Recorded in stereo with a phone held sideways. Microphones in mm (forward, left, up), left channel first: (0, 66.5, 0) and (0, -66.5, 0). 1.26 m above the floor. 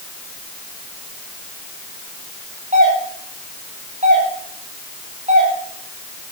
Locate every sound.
2.7 s a doorbell: 65° right (ahead or behind), 9 m